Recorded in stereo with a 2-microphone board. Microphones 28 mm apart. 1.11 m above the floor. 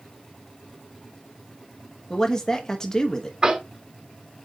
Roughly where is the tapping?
Right.